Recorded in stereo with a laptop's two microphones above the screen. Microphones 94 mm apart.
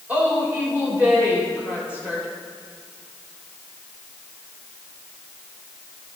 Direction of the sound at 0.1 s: 15° right (ahead or behind).